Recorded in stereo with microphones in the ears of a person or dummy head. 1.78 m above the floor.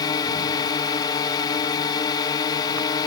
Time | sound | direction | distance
0.0 | a drone | 25° left (ahead or behind) | ?